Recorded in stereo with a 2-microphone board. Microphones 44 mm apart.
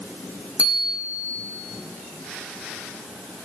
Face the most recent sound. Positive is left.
turn(degrees=-30)  # may be behind; listen again after turning